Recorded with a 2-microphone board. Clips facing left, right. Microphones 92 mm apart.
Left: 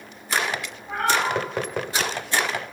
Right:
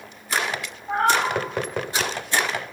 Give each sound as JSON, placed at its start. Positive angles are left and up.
{"t": 0.9, "sound": "a cat meowing", "side_deg": -35, "distance_m": 2.5}